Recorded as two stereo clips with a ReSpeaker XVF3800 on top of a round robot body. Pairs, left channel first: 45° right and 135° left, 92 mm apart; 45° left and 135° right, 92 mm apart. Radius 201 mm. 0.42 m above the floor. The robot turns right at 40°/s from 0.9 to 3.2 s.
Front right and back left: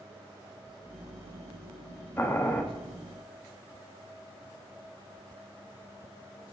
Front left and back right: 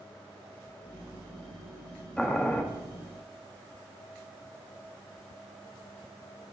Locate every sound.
2.2 s boiling: 15° right, 1.2 m; by 2.6 s straight ahead, 1.2 m